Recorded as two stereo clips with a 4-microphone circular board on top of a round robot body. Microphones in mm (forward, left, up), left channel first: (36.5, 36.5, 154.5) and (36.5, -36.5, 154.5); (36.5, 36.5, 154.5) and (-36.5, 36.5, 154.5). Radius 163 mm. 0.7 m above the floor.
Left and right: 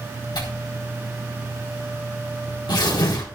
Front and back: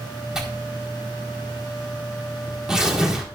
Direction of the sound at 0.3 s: 100° left.